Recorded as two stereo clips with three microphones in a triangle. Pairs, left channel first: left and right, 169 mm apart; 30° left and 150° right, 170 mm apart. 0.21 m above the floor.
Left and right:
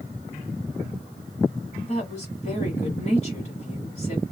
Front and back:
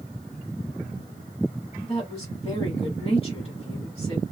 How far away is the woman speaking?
About 1.5 m.